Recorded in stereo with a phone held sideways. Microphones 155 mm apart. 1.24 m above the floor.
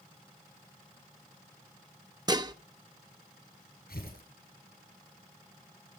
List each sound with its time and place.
2.3 s dishes clattering: 25° right (ahead or behind), 0.7 m
3.9 s tearing paper: 80° left, 9 m